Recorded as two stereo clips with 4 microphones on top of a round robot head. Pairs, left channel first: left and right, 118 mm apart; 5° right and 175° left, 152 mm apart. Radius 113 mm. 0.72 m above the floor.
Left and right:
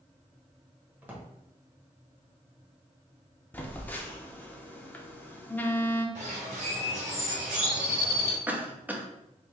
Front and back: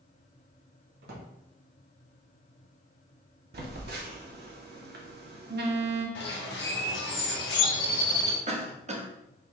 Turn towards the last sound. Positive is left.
turn(degrees=-165)